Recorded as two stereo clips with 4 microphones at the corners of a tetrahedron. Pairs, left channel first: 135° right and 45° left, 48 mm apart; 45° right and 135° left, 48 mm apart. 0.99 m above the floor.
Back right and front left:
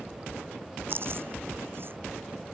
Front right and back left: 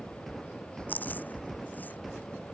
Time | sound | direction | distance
0.9 | chewing | 5° left | ?